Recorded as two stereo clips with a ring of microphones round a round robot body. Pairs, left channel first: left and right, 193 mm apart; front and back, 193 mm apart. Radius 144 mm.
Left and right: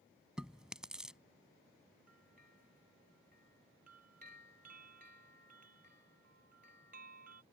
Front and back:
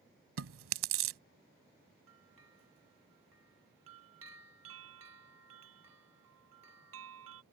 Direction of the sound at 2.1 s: 150° right.